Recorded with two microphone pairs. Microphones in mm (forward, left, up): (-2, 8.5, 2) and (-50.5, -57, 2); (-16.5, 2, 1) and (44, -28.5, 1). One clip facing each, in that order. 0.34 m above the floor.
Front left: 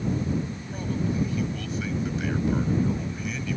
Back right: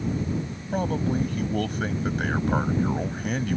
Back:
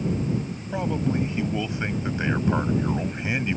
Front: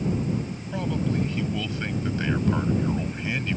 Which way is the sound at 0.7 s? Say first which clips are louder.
Back right 4 dB, back 2 dB; 140° right.